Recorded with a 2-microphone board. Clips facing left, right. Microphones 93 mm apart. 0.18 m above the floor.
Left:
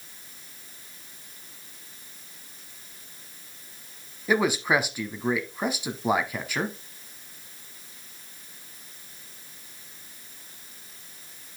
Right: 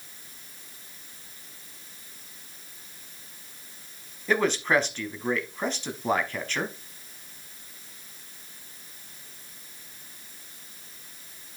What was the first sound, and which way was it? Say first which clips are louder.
A man speaking: left 1 dB; 10° left (ahead or behind).